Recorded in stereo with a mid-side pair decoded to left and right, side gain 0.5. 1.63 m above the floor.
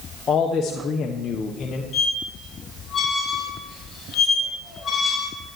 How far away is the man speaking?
About 1.2 m.